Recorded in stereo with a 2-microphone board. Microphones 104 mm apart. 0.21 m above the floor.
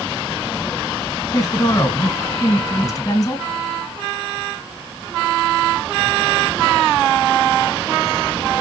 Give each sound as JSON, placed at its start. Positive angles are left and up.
{"t": 1.3, "sound": "a woman speaking", "side_deg": 35, "distance_m": 2.5}